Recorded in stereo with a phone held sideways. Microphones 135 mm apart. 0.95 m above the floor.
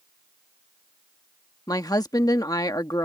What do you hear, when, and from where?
1.7 s a woman speaking: 30° left (ahead or behind)